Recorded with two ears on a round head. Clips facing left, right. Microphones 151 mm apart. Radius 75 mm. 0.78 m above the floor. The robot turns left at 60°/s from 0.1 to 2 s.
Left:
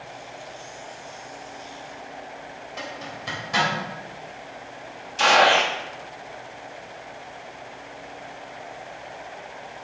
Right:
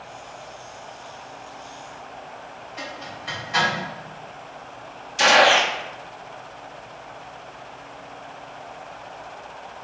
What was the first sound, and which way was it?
A zipper, 60° left (ahead or behind).